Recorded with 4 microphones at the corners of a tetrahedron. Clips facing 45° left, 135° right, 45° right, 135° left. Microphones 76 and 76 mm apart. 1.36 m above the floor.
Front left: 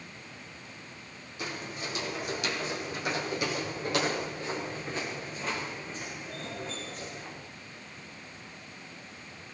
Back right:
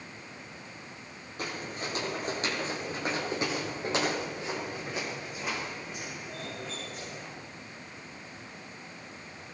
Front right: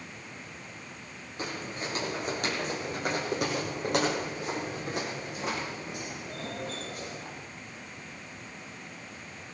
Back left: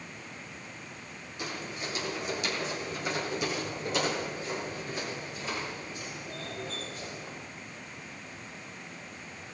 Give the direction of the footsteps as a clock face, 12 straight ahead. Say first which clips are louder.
Back right 1 dB, front right 2 dB; 3 o'clock.